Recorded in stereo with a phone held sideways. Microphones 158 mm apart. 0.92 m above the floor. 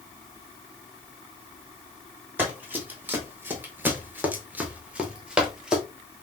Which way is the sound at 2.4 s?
10° right (ahead or behind).